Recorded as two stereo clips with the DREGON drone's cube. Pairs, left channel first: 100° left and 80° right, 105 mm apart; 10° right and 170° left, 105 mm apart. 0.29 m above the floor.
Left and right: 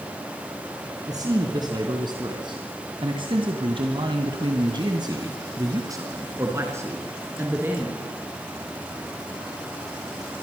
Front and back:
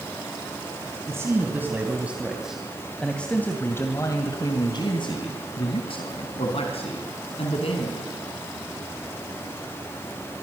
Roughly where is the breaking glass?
No breaking glass in this recording.